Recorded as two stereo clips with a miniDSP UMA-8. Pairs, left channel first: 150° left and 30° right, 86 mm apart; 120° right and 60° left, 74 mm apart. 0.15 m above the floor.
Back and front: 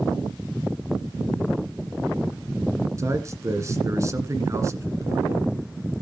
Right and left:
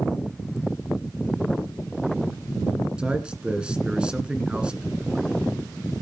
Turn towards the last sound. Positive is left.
turn(degrees=-10)